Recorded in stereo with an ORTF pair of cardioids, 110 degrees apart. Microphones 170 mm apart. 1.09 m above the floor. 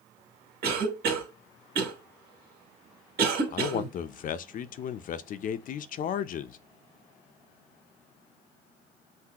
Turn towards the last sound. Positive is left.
turn(degrees=50)